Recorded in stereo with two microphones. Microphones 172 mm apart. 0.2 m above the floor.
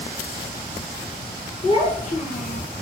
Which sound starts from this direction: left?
A child speaking, at 1.6 s.